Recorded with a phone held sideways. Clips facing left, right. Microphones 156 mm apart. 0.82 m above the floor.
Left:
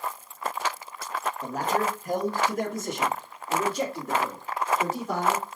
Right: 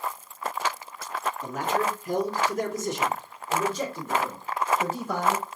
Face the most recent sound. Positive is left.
turn(degrees=75)  # may be behind; listen again after turning